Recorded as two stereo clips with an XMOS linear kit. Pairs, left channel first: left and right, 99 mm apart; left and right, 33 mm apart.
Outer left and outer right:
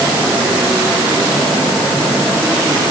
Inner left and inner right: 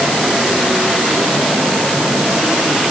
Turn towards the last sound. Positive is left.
No sound to turn to.